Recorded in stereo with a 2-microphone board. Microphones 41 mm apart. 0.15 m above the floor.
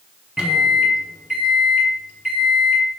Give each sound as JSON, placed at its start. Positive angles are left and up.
{"t": 0.4, "sound": "a microwave", "side_deg": -20, "distance_m": 1.1}